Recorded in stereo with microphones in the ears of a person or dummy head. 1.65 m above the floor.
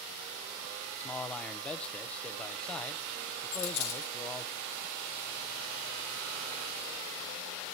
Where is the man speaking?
5° left (ahead or behind), 0.7 m.